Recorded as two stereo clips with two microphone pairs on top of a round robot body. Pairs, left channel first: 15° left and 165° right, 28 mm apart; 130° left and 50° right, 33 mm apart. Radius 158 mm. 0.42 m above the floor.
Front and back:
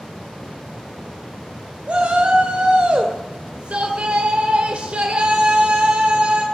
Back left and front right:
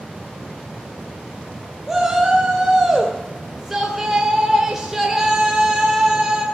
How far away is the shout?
About 1.8 m.